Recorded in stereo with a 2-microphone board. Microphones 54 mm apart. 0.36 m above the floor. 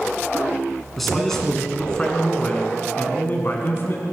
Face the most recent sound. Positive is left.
turn(degrees=50)  # may be behind; listen again after turning